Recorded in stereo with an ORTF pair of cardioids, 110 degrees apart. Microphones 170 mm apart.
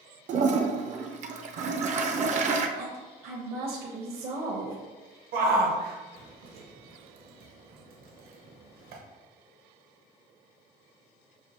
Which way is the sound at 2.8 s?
65° right.